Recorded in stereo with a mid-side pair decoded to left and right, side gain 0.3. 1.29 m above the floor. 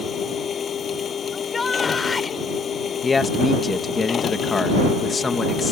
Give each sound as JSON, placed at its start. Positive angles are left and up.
{"t": 0.0, "sound": "a machine running", "azimuth_deg": 70}
{"t": 1.3, "sound": "a shout", "azimuth_deg": 45}
{"t": 3.0, "sound": "a man speaking", "azimuth_deg": 50}